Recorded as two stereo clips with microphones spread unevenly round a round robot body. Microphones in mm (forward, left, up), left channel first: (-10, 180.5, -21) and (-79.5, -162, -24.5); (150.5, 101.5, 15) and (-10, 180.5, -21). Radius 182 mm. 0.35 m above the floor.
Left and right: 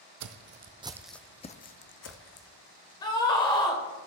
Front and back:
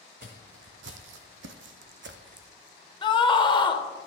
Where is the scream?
20° left, 1.0 m.